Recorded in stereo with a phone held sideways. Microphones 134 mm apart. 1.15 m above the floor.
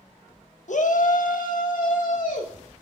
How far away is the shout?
About 1.1 m.